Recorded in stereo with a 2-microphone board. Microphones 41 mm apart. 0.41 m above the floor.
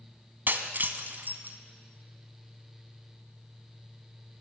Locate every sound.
0.5 s breaking glass: 50° right (ahead or behind), 1.5 m